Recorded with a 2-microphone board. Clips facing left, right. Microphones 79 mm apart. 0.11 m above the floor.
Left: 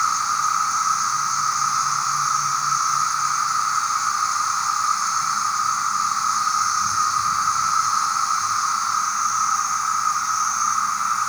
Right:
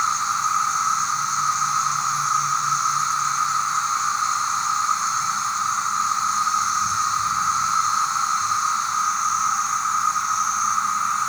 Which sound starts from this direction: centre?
An insect, at 0.0 s.